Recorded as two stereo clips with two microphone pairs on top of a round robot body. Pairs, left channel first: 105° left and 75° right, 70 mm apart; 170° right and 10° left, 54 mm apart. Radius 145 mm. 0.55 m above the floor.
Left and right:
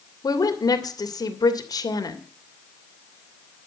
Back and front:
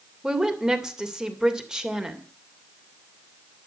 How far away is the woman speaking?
About 2.5 m.